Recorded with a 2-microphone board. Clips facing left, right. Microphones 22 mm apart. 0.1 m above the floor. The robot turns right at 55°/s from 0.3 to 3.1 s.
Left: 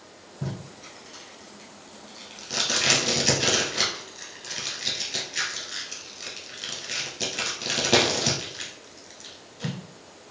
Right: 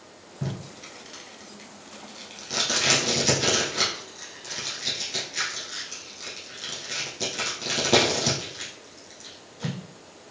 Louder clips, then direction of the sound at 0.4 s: Right 1 dB; 20° right (ahead or behind).